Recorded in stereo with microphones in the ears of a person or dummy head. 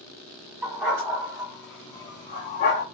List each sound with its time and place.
0.6 s a dog barking: 5° right (ahead or behind), 1.4 m; by 2.9 s 40° left (ahead or behind), 0.7 m